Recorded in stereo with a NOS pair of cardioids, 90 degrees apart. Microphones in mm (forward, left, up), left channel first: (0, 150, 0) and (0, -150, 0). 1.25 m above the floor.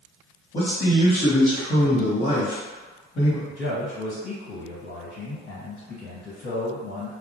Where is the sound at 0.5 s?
25° left, 0.9 m.